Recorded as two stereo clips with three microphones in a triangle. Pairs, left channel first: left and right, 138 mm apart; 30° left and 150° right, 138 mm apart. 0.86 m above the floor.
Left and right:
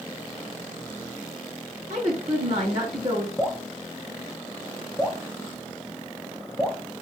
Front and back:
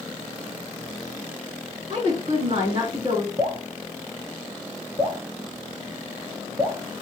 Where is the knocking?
No knocking in this recording.